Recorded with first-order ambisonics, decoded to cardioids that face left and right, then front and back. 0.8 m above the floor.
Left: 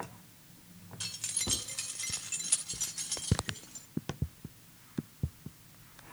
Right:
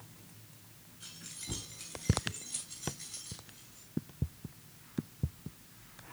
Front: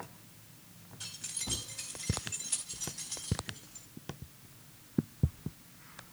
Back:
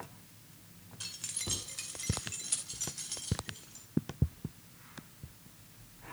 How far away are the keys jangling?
About 2.5 m.